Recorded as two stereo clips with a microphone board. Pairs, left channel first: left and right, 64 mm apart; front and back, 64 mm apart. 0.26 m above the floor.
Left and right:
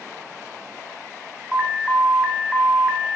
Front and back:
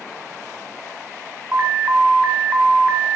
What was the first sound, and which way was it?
An alarm, 160° right.